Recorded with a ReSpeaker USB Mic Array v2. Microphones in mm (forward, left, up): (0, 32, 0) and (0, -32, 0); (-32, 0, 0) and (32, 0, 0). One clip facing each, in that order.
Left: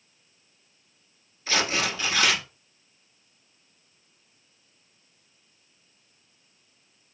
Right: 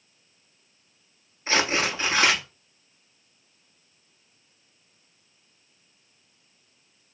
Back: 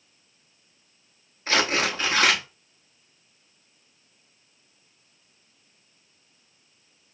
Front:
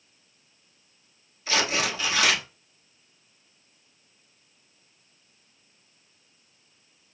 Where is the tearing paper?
145° right, 0.8 m.